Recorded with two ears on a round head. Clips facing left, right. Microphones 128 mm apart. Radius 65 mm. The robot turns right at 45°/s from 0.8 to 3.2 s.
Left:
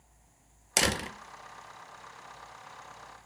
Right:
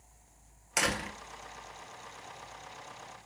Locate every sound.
0.8 s a door slam: 35° left (ahead or behind), 0.8 m